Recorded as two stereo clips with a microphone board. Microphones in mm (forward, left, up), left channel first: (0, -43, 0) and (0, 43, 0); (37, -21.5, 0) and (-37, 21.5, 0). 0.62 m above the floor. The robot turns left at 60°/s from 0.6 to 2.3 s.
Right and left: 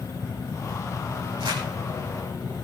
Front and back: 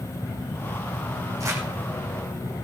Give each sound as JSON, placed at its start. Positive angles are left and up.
{"t": 1.4, "sound": "crumpling", "azimuth_deg": 105, "distance_m": 7.5}